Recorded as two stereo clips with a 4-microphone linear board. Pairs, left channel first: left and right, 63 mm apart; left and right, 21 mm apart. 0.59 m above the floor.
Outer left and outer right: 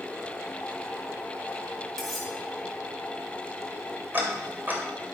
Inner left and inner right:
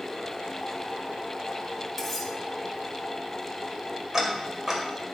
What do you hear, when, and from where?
2.0 s cutlery clinking: centre (ahead or behind), 2.5 m
4.1 s ticking: 30° right (ahead or behind), 2 m